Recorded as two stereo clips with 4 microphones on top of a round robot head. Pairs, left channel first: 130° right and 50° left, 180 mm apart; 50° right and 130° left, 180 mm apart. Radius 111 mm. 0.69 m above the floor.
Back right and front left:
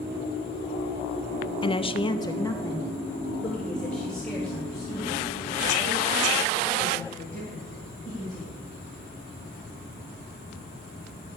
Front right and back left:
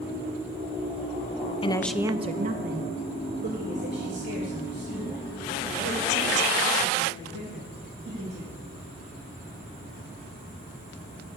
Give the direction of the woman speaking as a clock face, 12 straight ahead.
3 o'clock.